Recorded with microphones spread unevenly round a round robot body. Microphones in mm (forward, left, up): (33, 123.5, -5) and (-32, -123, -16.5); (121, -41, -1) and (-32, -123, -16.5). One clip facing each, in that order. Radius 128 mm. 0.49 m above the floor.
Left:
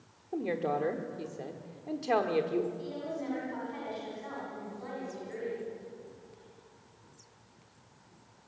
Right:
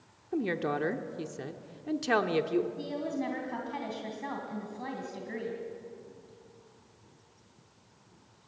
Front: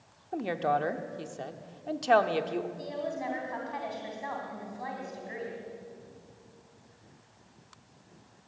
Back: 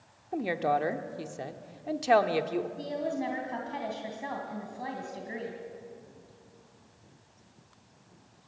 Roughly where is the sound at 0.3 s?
Right.